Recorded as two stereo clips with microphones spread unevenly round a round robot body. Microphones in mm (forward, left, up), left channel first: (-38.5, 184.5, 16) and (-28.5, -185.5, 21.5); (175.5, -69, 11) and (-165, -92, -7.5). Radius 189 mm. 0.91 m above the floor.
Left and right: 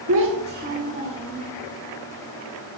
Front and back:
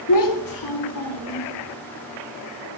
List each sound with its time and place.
0.1 s a child speaking: 35° right, 1.3 m; by 1.5 s 10° right, 2.5 m